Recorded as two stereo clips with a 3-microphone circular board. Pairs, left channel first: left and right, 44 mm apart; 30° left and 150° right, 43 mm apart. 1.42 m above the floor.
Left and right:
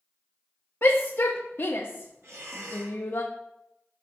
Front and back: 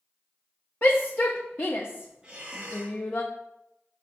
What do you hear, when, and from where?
0.8 s a shout: 65° left, 0.7 m
2.2 s breathing: 75° right, 4 m